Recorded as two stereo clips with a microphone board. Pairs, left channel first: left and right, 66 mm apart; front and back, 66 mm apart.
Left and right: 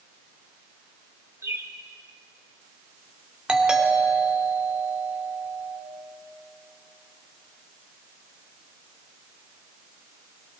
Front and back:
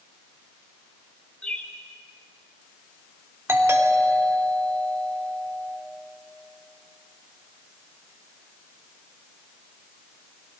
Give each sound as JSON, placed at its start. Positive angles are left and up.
{"t": 1.4, "sound": "a bird", "azimuth_deg": -70, "distance_m": 1.4}
{"t": 3.5, "sound": "a doorbell", "azimuth_deg": -160, "distance_m": 2.0}